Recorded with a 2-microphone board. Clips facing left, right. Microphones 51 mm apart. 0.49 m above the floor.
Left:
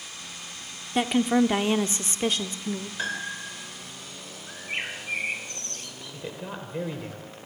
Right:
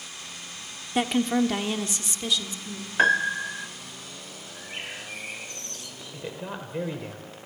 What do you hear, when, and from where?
0.9 s a woman speaking: 5° right (ahead or behind), 0.9 m; by 2.9 s 55° left (ahead or behind), 1.3 m
3.0 s a piano: 50° right (ahead or behind), 1.1 m
4.5 s a bird: 50° left (ahead or behind), 3 m
6.1 s a man speaking: 5° right (ahead or behind), 1.8 m